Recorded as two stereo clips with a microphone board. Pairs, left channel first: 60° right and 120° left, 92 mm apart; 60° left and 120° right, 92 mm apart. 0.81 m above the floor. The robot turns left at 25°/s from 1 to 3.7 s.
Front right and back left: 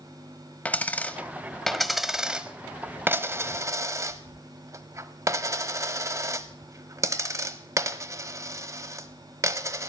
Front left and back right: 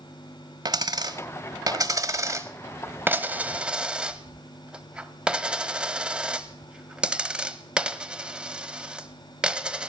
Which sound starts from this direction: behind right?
A dropped coin, at 0.7 s.